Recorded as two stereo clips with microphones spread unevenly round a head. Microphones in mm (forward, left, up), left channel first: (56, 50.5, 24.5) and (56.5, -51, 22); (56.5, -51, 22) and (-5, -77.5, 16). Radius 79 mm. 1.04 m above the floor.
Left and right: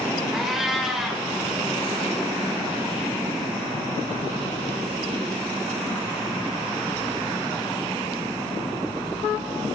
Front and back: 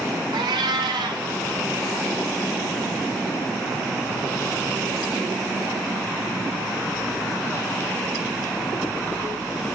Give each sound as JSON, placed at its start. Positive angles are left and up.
{"t": 0.3, "sound": "a cat meowing", "azimuth_deg": 180, "distance_m": 1.4}